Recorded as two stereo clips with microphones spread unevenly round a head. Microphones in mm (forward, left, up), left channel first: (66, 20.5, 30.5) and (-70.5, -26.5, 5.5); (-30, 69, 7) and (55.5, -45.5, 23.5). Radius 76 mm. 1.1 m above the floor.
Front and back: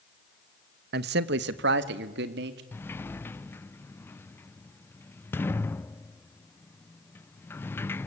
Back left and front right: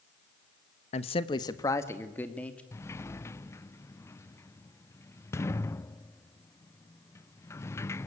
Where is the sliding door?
100° left, 0.5 m.